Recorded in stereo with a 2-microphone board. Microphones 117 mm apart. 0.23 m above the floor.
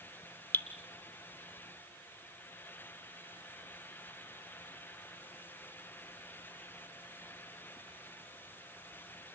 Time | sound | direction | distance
0.5 | dripping | 15° left (ahead or behind) | 1.7 m